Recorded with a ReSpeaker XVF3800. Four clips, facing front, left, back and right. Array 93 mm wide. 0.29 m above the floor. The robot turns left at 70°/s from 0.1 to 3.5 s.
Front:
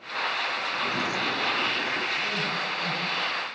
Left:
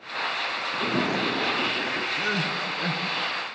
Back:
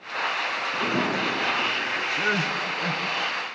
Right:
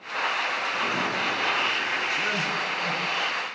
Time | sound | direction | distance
0.7 | a sliding door | 150° left | 3 m
2.2 | crying | 165° left | 3 m